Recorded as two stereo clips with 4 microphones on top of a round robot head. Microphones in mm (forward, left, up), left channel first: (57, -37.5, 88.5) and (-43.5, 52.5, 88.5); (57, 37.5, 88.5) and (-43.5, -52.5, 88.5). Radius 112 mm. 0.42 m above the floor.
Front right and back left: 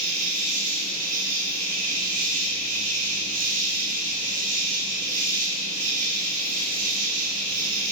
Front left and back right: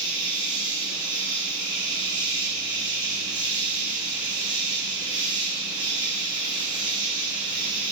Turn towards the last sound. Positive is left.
turn(degrees=160)